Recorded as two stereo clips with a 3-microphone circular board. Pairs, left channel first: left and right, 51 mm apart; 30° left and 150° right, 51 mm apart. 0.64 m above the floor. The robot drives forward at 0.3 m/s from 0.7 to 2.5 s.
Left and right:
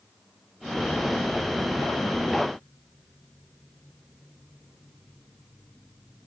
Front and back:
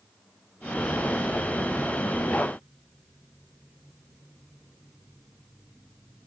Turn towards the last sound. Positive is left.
No sound to turn to.